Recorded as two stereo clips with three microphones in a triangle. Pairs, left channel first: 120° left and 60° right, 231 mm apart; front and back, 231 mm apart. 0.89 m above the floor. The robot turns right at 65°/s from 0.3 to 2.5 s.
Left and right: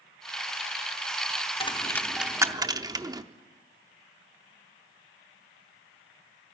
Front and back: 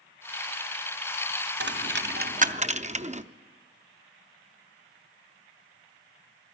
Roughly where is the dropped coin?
Behind.